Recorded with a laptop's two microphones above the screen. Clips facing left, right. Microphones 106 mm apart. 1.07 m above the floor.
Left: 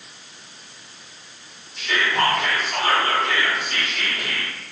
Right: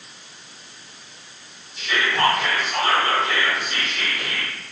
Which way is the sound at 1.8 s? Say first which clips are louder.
Even; 55° left (ahead or behind).